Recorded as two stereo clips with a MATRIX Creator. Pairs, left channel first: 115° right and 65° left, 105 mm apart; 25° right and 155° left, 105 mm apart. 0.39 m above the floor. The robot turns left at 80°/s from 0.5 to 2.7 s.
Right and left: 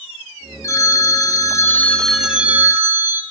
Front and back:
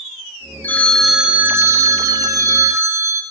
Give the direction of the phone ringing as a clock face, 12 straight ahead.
3 o'clock.